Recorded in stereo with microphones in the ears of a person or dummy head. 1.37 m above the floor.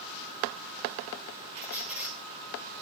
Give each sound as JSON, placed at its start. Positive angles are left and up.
{"t": 1.6, "sound": "a squeak", "side_deg": -10, "distance_m": 4.0}